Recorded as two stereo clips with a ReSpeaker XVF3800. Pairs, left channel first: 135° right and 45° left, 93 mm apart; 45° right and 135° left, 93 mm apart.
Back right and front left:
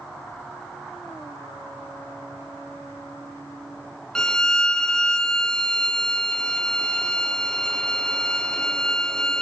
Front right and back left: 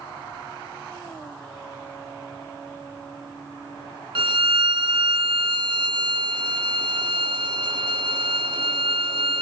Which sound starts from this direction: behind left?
A violin, at 4.2 s.